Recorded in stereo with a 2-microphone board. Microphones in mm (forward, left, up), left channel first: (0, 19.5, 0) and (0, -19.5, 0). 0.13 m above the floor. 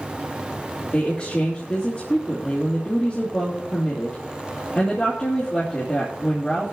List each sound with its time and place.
0.9 s a woman speaking: 40° left (ahead or behind), 2.5 m